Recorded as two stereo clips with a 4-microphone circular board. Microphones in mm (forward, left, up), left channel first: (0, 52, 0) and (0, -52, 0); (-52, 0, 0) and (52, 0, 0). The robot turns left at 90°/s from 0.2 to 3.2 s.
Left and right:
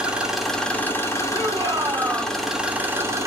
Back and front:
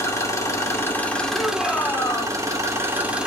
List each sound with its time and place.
0.0 s an engine running: 160° right, 0.8 m; by 3.3 s 70° right, 0.8 m
1.3 s a shout: 80° right, 0.8 m; by 2.4 s 175° right, 0.8 m